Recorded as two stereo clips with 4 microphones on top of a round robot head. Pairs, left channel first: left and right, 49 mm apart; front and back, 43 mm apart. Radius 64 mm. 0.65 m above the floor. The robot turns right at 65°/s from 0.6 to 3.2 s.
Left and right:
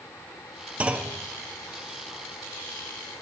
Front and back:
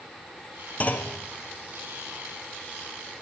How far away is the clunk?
About 0.9 m.